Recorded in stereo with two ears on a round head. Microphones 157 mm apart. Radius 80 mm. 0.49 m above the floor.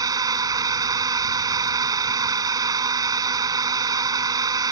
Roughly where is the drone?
Right.